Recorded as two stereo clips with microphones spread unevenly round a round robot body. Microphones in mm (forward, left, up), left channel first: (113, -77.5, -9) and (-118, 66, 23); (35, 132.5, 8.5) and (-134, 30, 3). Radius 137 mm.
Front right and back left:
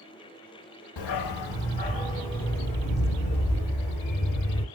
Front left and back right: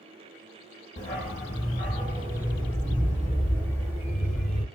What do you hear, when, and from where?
1.0 s a dog barking: 35° right, 0.6 m; by 4.6 s 30° right, 2.5 m